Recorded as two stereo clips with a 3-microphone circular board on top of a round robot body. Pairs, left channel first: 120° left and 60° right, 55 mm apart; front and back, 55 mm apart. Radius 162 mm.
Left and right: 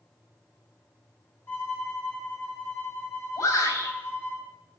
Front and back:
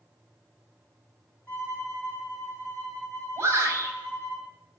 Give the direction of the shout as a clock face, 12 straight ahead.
8 o'clock.